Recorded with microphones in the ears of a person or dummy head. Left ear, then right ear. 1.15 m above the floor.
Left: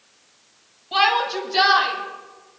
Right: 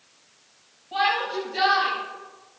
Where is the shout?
50° left (ahead or behind), 6.5 m; by 2.6 s 45° left (ahead or behind), 9 m.